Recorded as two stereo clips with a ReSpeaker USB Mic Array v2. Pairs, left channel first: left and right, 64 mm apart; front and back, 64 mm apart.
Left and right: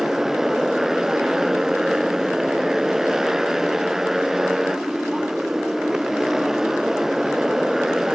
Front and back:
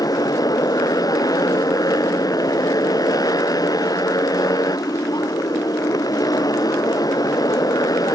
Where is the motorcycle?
5° right.